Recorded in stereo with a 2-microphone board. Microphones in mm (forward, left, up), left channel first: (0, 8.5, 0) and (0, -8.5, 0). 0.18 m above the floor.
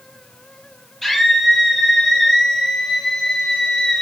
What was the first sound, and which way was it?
A scream, 20° left (ahead or behind).